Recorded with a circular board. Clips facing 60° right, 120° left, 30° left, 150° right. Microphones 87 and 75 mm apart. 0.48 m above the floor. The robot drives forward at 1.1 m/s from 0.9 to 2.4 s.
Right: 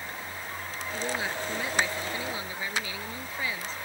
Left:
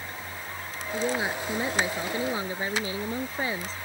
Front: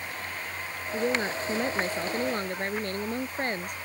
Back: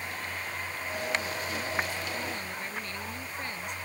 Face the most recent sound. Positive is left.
turn(degrees=65)